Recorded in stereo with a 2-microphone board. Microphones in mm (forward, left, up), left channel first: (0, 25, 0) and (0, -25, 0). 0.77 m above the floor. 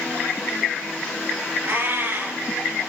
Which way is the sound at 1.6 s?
60° right (ahead or behind).